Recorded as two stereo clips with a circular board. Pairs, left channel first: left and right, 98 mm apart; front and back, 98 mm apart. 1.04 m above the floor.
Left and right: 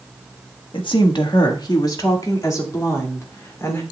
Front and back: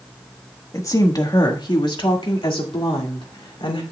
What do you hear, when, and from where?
0.7 s a woman speaking: 55° left, 1.3 m; by 3.8 s 25° left, 2.5 m